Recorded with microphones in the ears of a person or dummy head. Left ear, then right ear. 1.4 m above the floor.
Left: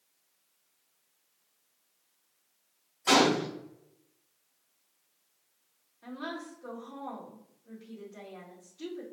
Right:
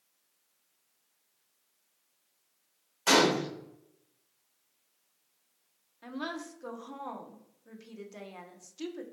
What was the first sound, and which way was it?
A gunshot, 70° right (ahead or behind).